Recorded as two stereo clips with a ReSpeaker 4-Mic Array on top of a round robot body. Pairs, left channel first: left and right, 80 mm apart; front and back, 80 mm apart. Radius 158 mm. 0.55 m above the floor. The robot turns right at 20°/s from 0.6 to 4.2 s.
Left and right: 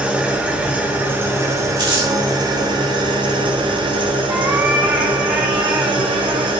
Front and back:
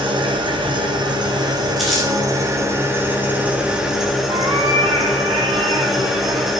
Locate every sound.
0.0 s an engine running: 165° right, 1.4 m; by 6.6 s 95° right, 1.4 m
1.8 s crumpling: 95° right, 4.5 m; by 2.1 s 85° right, 4.5 m
4.3 s a cat meowing: 160° right, 0.7 m